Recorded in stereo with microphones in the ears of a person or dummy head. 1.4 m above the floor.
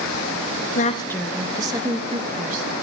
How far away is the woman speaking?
About 0.8 m.